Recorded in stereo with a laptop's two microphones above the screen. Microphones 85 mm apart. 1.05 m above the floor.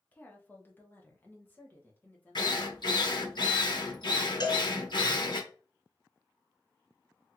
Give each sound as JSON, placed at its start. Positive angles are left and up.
{"t": 0.1, "sound": "a woman speaking", "side_deg": 15, "distance_m": 0.7}
{"t": 2.4, "sound": "a drill", "side_deg": 60, "distance_m": 0.8}
{"t": 4.4, "sound": "a cowbell", "side_deg": 60, "distance_m": 1.7}